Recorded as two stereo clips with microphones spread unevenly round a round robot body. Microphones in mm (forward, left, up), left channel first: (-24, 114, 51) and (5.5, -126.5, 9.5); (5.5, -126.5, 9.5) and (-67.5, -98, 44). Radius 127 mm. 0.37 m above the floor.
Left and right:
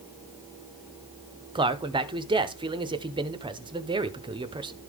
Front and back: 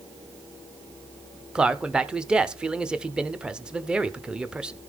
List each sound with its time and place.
1.6 s a man speaking: 85° right, 1.0 m